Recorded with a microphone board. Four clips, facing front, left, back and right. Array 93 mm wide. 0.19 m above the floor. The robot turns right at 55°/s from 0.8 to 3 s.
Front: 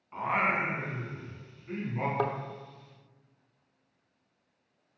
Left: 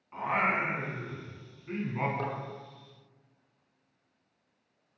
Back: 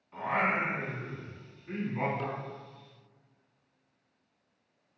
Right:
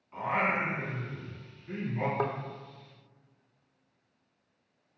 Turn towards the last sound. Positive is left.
turn(degrees=35)